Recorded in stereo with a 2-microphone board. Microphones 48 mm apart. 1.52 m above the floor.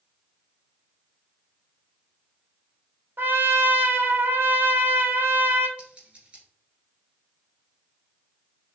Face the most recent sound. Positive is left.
turn(degrees=-30)  # may be behind; listen again after turning